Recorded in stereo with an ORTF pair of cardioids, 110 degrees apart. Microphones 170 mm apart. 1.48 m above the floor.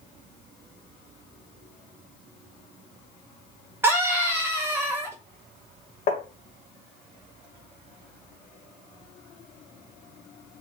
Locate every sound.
3.8 s a scream: 15° right, 1.7 m
6.1 s tapping: 50° left, 1.7 m